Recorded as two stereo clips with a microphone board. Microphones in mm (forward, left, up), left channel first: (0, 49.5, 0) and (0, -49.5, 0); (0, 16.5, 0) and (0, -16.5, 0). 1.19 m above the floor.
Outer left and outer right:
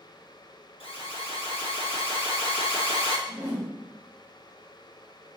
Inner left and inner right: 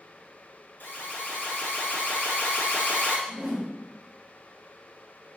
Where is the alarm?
70° left (ahead or behind), 1.0 m.